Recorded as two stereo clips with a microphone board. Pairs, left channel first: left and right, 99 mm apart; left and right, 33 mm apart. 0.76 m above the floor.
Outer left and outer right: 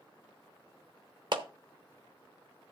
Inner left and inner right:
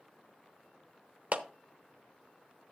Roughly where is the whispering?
I don't hear whispering.